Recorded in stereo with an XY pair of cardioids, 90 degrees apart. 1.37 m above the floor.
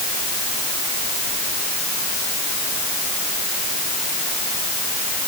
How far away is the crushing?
I don't hear crushing.